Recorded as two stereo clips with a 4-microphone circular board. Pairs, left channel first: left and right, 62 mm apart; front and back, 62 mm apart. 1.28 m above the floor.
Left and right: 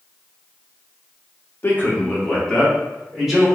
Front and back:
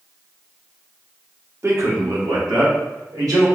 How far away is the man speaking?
About 0.8 m.